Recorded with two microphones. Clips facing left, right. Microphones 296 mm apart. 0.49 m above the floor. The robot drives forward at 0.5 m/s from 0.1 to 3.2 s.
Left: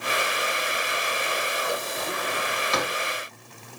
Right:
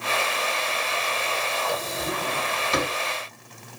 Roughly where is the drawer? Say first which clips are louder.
Right 1 dB; right.